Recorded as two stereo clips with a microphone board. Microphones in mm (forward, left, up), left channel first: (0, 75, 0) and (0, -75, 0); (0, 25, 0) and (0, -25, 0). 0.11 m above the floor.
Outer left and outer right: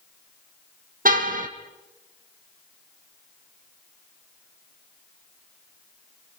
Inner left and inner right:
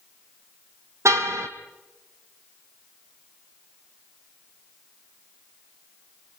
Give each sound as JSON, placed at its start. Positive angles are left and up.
{"t": 1.1, "sound": "a car horn", "side_deg": -70, "distance_m": 2.5}